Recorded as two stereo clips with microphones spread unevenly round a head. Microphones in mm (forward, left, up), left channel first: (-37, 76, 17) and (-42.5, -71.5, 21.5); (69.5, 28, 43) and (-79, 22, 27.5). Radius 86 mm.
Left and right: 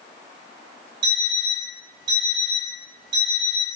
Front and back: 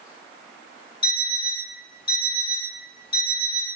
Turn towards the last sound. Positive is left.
turn(degrees=-40)